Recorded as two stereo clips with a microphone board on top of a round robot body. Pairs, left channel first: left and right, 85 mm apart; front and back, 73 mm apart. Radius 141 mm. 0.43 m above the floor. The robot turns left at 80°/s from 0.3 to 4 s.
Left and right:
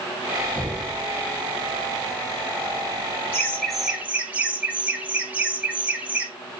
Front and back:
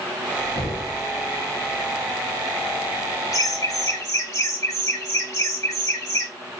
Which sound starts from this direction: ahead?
Knocking, at 0.6 s.